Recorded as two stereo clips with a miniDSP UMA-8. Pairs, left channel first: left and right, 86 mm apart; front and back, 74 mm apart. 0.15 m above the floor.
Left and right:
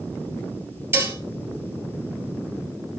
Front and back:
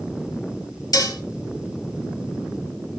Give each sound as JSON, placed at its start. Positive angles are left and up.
{"t": 0.9, "sound": "dishes clattering", "azimuth_deg": -30, "distance_m": 2.0}